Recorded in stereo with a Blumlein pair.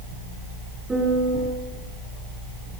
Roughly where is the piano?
Ahead.